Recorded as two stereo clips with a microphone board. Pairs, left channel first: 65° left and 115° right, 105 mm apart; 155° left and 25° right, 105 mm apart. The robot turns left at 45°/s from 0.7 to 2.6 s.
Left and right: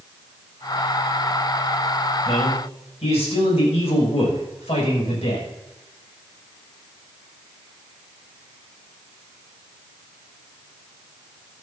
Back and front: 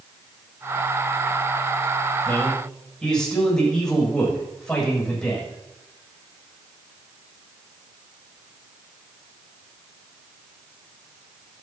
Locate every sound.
2.2 s a man speaking: 90° left, 7 m; by 5.5 s 75° left, 7 m